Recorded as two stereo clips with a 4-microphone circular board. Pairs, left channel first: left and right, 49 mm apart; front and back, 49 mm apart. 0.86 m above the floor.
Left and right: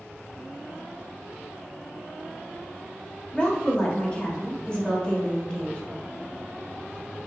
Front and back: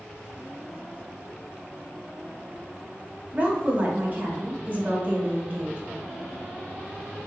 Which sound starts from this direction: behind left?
A woman speaking, at 3.3 s.